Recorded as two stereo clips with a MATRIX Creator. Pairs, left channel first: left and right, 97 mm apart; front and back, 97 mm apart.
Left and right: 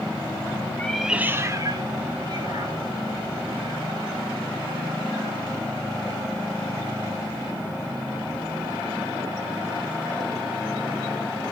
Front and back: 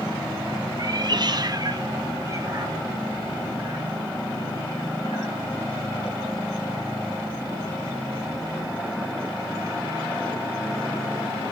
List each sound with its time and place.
0.8 s a cat meowing: 155° left, 0.6 m; by 5.4 s 115° right, 4.5 m